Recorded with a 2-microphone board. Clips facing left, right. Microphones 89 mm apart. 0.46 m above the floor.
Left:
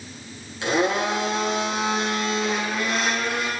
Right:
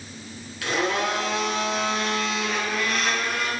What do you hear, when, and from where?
0.6 s a blender: 25° left (ahead or behind), 4 m